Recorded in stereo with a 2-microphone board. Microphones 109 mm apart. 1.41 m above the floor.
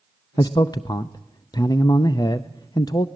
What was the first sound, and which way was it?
A man speaking, 40° left (ahead or behind).